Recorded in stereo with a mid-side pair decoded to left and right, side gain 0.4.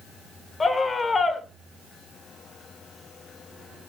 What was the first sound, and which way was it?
A scream, 35° left.